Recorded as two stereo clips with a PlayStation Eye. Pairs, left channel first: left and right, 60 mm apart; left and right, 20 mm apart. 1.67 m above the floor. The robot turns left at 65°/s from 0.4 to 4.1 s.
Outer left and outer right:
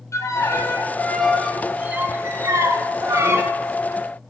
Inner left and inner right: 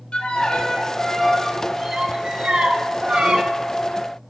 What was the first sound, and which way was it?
A violin, 65° left.